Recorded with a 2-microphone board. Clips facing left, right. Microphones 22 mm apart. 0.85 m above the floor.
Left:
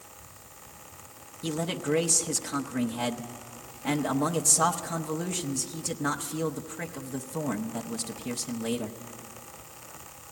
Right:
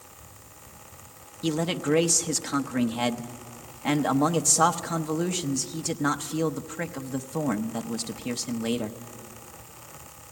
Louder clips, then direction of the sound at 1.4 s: Right 4 dB; 25° right (ahead or behind).